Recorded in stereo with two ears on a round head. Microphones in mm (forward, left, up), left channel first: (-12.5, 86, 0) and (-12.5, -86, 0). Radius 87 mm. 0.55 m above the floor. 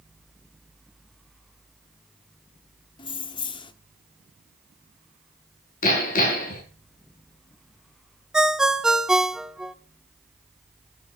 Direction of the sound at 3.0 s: 25° left (ahead or behind).